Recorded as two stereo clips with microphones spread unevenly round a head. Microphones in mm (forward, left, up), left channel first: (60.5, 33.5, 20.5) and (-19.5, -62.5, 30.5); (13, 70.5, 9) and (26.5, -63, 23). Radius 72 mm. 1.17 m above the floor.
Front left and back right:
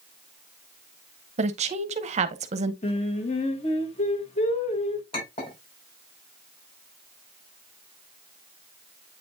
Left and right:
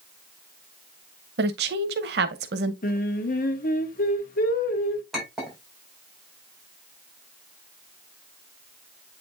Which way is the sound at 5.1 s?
5° left.